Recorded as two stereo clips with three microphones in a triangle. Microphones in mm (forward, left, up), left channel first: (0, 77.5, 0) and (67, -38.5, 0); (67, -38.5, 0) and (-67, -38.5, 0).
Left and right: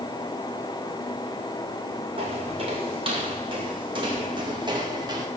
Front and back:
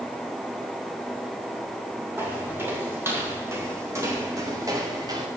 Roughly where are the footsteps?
Right.